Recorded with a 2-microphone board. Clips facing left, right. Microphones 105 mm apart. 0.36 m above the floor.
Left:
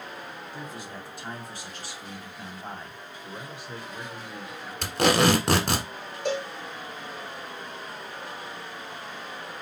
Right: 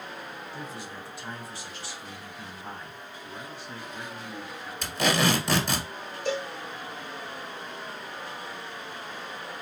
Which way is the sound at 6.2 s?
70° left (ahead or behind).